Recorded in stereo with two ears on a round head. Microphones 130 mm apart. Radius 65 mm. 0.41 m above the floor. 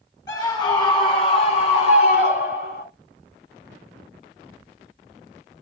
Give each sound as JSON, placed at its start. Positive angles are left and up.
{"t": 0.3, "sound": "a scream", "side_deg": 25, "distance_m": 4.0}